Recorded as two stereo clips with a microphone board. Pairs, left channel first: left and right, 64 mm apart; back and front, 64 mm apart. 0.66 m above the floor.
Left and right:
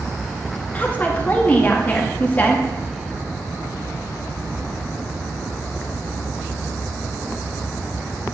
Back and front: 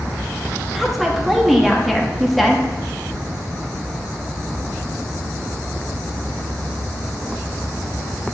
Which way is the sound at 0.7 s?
90° left.